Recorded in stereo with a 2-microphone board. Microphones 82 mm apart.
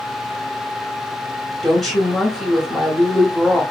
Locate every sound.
1.6 s a woman speaking: centre (ahead or behind), 1.3 m